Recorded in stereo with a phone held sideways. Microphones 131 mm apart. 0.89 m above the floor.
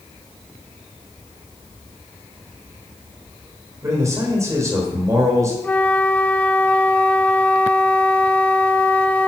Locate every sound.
3.8 s a man speaking: 25° right (ahead or behind), 3.5 m
5.6 s a flute: 15° left (ahead or behind), 0.7 m